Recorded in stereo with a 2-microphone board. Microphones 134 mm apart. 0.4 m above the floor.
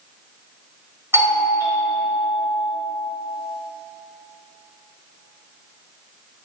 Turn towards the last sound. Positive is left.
turn(degrees=-20)  # may be behind; listen again after turning